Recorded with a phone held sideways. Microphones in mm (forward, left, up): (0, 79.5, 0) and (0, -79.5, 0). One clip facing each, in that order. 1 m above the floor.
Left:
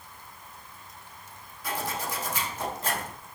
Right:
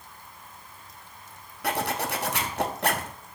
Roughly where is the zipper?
Right.